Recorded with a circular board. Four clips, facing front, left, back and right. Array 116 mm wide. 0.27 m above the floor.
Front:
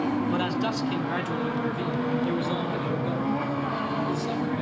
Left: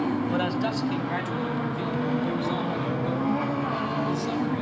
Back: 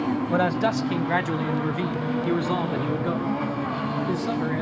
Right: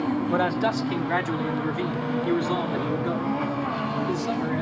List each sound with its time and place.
0.3 s a man speaking: 140° right, 1.3 m; by 4.6 s 160° right, 4.5 m